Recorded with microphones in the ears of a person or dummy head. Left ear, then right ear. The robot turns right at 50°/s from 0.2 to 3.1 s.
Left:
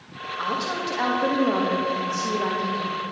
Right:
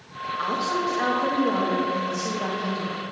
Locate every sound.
0.4 s a woman speaking: 5° right, 1.4 m; by 2.9 s 120° left, 1.4 m